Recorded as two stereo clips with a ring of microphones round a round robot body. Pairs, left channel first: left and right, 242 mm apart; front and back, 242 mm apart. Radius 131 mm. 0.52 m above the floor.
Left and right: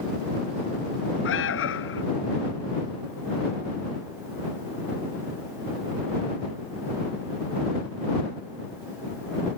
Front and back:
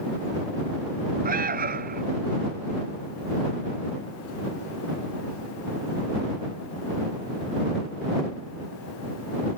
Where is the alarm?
125° left.